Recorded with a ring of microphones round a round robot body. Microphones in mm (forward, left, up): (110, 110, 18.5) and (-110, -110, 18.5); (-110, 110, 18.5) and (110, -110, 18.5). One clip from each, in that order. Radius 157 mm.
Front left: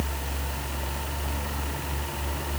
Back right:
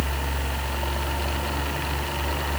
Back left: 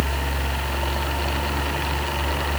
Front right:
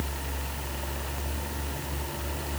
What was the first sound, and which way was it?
Only background noise.